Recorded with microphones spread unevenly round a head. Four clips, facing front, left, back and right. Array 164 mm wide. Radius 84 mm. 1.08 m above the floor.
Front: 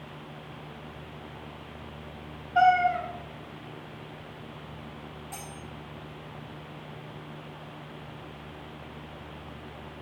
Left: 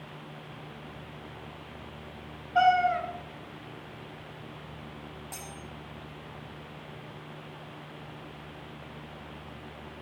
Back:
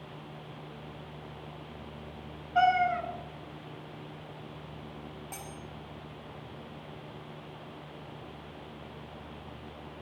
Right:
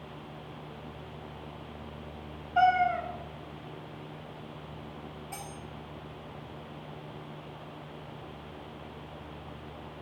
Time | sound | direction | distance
2.5 | a cat meowing | 110° left | 1.2 m
5.3 | cutlery clinking | 145° left | 1.4 m